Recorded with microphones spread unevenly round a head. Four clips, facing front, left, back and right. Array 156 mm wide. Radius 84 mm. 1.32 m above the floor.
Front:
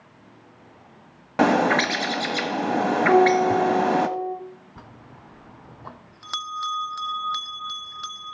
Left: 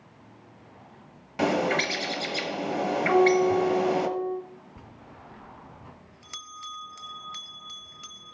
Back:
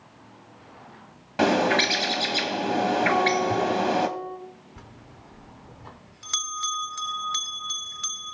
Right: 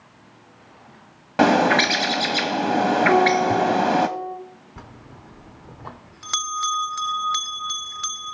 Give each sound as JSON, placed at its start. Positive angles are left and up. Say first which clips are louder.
{"t": 1.4, "sound": "a bird", "louder": "right 8 dB, front 2 dB", "azimuth_deg": -60, "distance_m": 1.0}
{"t": 3.1, "sound": "a guitar", "louder": "left 1 dB, front 6 dB", "azimuth_deg": 0, "distance_m": 8.0}
{"t": 4.8, "sound": "a bell", "louder": "right 4 dB, front 2 dB", "azimuth_deg": -70, "distance_m": 0.5}